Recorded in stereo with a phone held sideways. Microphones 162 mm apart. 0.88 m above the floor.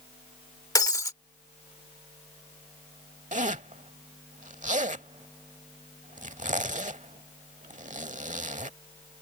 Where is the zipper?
50° right (ahead or behind).